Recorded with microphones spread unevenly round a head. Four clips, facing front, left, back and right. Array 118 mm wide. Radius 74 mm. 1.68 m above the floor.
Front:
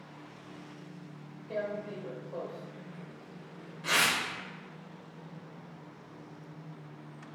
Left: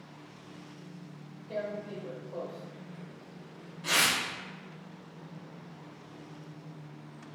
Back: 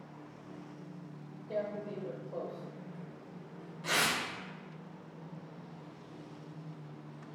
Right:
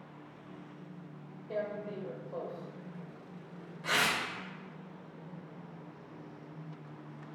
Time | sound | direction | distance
1.5 | tearing paper | 150° right | 1.5 m